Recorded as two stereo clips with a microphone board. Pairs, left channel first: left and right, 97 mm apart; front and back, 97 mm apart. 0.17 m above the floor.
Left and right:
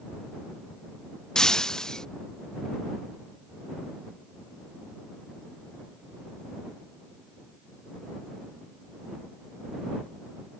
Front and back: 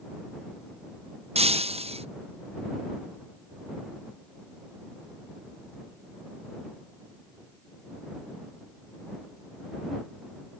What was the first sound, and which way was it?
Breaking glass, 175° left.